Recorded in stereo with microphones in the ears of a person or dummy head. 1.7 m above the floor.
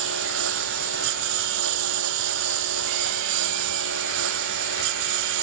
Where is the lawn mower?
65° right (ahead or behind).